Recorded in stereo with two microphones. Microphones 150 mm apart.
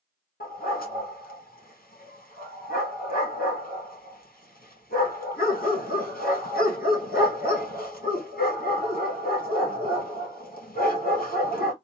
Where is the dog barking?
80° left, 1.8 m.